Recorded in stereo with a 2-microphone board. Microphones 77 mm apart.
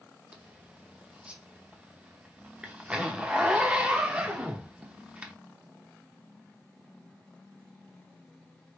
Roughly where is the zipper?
Centre.